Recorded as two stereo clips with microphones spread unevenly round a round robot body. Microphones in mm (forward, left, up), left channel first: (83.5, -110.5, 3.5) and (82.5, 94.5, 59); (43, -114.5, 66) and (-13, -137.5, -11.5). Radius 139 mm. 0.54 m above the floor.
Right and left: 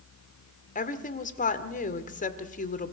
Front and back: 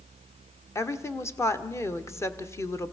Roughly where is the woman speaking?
Ahead right.